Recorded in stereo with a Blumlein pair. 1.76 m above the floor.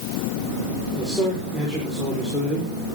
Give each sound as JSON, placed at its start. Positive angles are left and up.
{"t": 0.9, "sound": "a man speaking", "azimuth_deg": 10, "distance_m": 6.5}